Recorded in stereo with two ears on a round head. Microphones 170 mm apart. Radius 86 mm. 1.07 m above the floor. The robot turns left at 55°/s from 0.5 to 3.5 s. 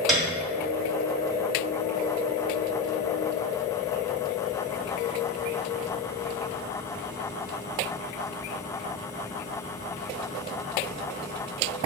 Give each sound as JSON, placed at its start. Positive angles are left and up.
{"t": 0.1, "sound": "a piano", "side_deg": 0, "distance_m": 0.8}